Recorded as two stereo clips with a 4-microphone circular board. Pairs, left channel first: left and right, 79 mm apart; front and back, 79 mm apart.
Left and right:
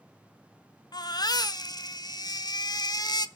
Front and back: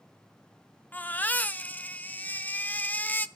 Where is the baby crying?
70° left, 0.8 m.